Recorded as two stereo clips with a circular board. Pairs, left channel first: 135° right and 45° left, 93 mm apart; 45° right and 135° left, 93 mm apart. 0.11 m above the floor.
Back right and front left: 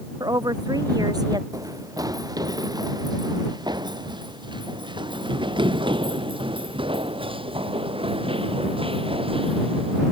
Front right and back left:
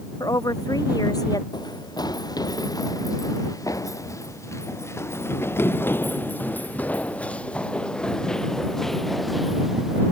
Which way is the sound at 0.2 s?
Straight ahead.